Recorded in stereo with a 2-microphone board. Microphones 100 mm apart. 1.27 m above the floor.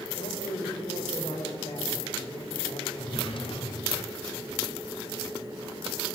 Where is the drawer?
60° left (ahead or behind), 1.8 m.